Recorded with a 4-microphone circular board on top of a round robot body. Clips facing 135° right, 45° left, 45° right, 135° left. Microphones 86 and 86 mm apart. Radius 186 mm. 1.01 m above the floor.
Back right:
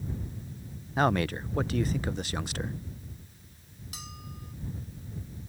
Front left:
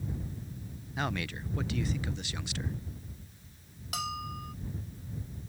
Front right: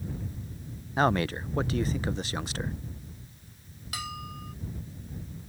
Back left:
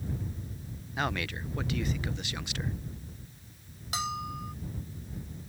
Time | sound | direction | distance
1.0 | a man speaking | 95° right | ?
3.9 | a bell | 70° left | ?